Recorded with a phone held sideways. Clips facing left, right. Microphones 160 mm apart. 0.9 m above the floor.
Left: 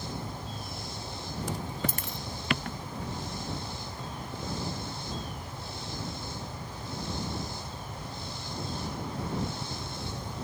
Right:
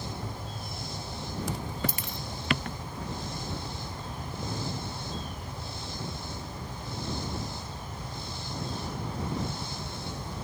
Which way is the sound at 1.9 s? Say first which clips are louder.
Even; 50° left (ahead or behind).